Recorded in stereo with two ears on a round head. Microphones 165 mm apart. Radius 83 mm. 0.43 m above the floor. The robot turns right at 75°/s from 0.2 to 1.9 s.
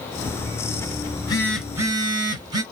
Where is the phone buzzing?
140° left, 0.9 m; by 2.6 s 155° right, 0.9 m.